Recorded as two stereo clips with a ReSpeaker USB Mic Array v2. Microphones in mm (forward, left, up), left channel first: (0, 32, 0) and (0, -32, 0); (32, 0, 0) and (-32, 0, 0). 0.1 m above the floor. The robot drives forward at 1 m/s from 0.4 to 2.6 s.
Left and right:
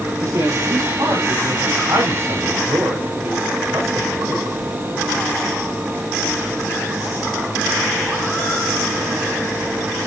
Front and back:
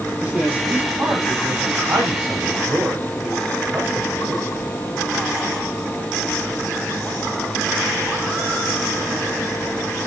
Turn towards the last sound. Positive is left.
turn(degrees=-130)